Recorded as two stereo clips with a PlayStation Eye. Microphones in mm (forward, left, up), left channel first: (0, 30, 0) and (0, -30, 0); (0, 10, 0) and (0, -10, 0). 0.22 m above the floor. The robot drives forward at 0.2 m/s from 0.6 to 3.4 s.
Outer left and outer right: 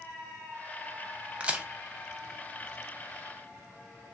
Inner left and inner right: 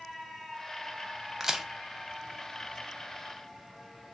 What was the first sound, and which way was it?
A crack, 20° right (ahead or behind).